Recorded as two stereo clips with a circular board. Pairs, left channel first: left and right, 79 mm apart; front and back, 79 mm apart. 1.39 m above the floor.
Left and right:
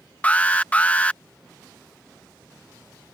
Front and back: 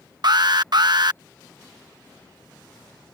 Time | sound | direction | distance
0.2 | an alarm | 160° left | ?